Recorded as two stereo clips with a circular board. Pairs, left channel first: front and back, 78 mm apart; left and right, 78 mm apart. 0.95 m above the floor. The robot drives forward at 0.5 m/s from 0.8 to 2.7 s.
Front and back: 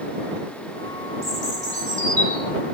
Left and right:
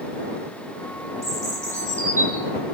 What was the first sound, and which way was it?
A bird, 130° right.